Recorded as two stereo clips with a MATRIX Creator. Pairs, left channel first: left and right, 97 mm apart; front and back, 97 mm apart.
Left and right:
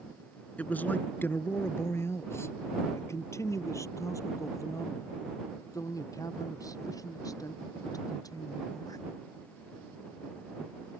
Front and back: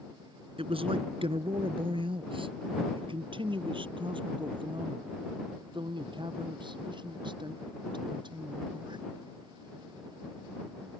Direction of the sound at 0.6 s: 165° left.